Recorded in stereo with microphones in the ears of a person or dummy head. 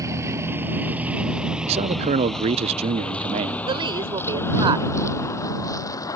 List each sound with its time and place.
0.0 s a vehicle: 15° right (ahead or behind); by 6.2 s 25° left (ahead or behind)
1.7 s a man speaking: 35° right (ahead or behind)
3.7 s a woman speaking: 25° right (ahead or behind)